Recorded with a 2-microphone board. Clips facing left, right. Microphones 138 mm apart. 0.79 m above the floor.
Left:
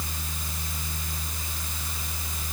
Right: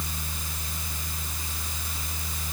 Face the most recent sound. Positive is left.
No sound to turn to.